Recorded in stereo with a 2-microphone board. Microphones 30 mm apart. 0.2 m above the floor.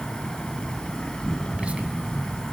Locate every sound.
0.0 s an insect: 25° left (ahead or behind), 3 m
1.5 s whispering: 35° right (ahead or behind), 1.5 m